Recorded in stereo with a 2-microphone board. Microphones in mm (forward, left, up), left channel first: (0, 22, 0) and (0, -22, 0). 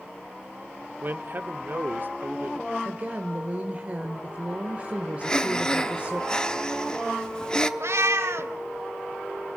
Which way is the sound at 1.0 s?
45° right (ahead or behind).